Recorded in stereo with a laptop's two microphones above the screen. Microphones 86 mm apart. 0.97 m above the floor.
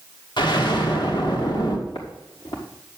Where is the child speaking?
No child speaking in this recording.